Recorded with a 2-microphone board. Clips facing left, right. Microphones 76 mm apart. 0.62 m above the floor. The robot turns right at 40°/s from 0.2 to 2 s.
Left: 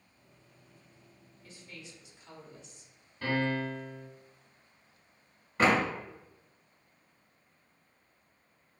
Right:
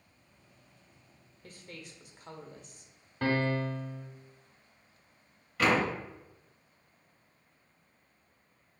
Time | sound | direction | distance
1.4 | a woman speaking | 50° right (ahead or behind) | 0.8 m
3.2 | a piano | 65° right (ahead or behind) | 1.1 m
5.6 | a door slam | 30° left (ahead or behind) | 0.8 m